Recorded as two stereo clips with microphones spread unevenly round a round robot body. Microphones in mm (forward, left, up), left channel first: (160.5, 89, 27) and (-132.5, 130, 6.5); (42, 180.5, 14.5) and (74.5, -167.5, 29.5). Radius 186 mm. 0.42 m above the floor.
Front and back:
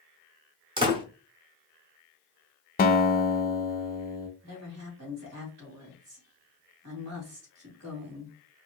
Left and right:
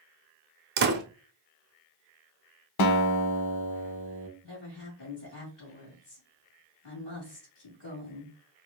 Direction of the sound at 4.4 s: 145° left.